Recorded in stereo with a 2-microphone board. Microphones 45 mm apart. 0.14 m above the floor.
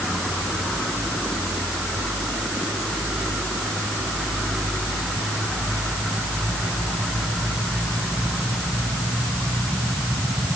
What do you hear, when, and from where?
Only background noise.